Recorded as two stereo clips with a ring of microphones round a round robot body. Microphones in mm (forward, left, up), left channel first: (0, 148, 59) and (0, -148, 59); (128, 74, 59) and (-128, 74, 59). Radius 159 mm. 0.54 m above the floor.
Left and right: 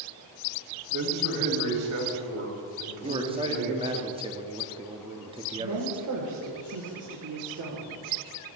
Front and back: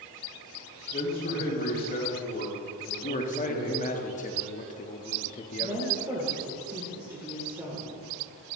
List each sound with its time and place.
0.9 s a man speaking: 60° right, 3.5 m
3.0 s a man speaking: 30° right, 0.9 m
5.6 s a woman speaking: 100° right, 2 m